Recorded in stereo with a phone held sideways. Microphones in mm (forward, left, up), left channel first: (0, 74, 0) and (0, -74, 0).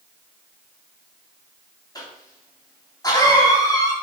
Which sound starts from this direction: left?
A cough, at 1.9 s.